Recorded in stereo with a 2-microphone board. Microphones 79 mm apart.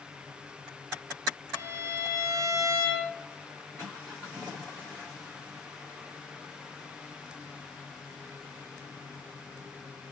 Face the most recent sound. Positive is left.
turn(degrees=-40)  # may be behind; listen again after turning